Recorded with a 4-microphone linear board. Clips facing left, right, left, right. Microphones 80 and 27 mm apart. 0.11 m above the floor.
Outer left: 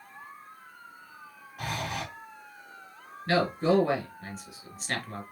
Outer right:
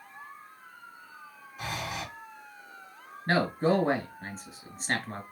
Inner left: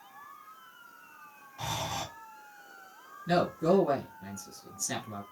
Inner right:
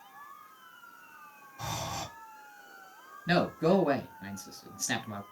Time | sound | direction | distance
1.6 | breathing | 60° left (ahead or behind) | 2.5 m
3.3 | a man speaking | 30° right (ahead or behind) | 1.3 m